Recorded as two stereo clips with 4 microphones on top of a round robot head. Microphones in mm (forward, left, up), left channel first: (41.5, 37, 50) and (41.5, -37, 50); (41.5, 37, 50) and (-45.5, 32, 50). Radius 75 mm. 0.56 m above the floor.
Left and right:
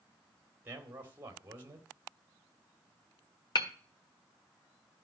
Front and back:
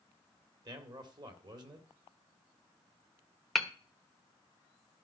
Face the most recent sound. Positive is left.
turn(degrees=95)